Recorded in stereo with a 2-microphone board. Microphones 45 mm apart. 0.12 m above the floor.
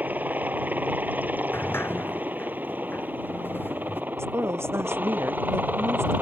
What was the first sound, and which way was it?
A helicopter, 35° right (ahead or behind).